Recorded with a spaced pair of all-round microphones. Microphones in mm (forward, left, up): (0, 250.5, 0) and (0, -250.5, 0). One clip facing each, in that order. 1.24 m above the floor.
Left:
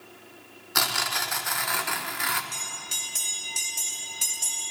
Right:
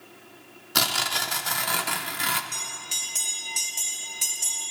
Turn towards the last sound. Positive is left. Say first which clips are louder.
# even
turn(degrees=35)  # may be behind; listen again after turning